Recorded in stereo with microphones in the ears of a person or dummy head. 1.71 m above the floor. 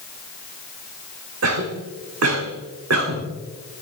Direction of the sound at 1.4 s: 75° right (ahead or behind).